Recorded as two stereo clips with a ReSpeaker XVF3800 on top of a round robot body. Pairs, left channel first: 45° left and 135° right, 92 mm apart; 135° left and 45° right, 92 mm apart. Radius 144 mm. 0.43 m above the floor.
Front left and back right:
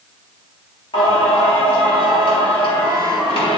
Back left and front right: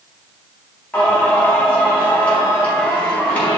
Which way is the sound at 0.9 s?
65° left.